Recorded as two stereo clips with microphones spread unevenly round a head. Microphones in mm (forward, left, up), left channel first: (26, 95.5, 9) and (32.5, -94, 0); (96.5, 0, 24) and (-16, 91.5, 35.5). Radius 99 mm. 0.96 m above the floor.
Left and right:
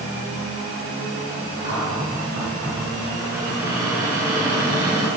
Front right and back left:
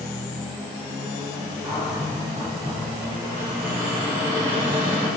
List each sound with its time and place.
1.6 s a cupboard door: 140° right, 4 m